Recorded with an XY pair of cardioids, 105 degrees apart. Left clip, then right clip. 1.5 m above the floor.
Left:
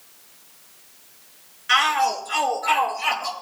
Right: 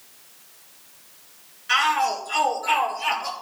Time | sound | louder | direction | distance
1.7 | a shout | left 2 dB | 40° left | 5.5 m